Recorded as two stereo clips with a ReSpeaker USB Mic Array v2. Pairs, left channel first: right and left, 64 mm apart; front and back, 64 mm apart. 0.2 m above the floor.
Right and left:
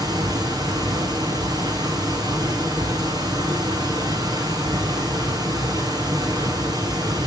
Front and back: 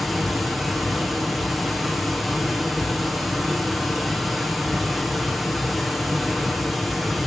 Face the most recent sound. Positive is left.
turn(degrees=95)